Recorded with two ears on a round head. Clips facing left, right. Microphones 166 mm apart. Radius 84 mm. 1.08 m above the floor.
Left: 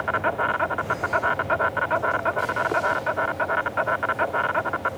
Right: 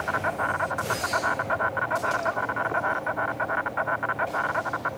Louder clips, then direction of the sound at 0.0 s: Left 3 dB; 40° left (ahead or behind).